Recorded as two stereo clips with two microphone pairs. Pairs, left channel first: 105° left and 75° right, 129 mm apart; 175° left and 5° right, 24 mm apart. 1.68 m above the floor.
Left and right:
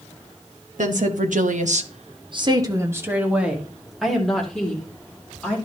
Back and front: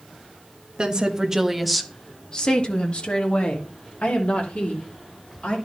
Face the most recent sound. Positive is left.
turn(degrees=-175)